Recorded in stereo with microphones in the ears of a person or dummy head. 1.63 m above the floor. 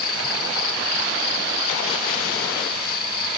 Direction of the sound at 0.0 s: 75° left (ahead or behind).